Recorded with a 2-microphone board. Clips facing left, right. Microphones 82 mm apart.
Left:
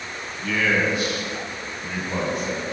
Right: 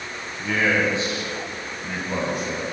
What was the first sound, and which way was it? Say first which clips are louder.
A man speaking: right 1 dB; 35° right (ahead or behind).